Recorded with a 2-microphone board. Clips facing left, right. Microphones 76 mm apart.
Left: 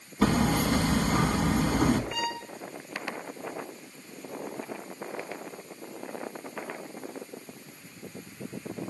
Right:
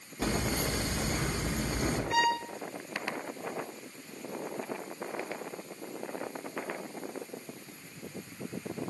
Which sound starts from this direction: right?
A violin, at 2.1 s.